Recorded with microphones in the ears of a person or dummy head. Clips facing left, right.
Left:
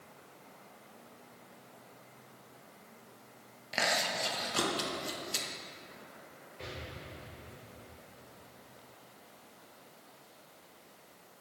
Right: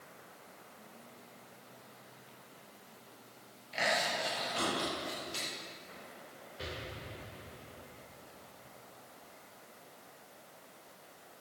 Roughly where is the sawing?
No sawing in this recording.